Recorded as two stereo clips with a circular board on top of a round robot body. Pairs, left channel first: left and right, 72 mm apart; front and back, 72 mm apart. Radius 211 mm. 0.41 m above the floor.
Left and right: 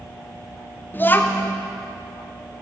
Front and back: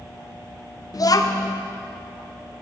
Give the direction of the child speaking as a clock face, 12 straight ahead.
11 o'clock.